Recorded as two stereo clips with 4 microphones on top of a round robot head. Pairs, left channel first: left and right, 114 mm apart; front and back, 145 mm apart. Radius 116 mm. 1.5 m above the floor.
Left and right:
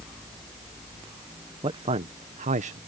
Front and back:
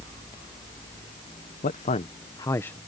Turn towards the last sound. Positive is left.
turn(degrees=-85)